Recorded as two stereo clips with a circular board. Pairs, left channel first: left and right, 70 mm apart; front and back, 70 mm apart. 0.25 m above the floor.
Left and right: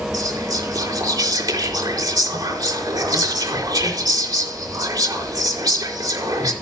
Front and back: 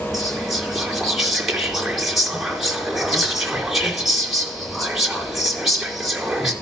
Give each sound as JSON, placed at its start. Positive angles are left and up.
{"t": 0.1, "sound": "whispering", "azimuth_deg": -95, "distance_m": 4.0}